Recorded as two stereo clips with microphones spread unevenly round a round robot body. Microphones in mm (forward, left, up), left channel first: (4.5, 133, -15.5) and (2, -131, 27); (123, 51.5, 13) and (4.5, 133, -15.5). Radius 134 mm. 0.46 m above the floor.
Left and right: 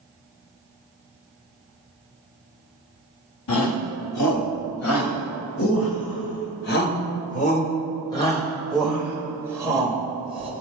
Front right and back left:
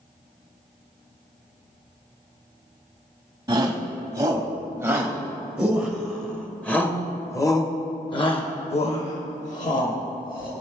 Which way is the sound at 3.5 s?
85° left.